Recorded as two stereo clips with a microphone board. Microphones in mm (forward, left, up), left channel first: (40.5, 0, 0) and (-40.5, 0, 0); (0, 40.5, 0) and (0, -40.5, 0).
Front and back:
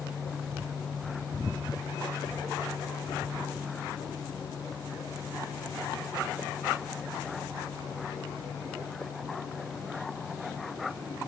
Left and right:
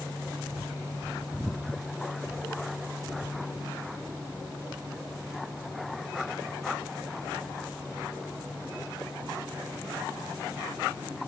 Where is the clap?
No clap in this recording.